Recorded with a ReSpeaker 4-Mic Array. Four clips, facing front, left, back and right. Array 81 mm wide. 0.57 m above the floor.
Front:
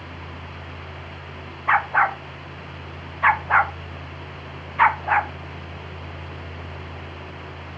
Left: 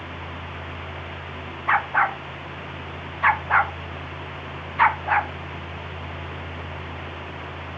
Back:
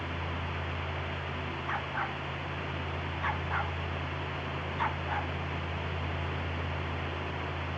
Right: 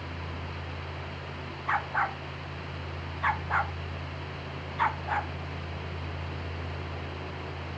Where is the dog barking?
25° left; by 5.3 s 30° left.